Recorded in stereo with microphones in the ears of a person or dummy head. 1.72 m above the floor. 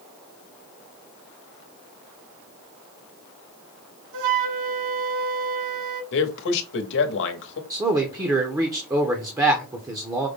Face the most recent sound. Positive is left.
turn(degrees=-10)  # may be behind; listen again after turning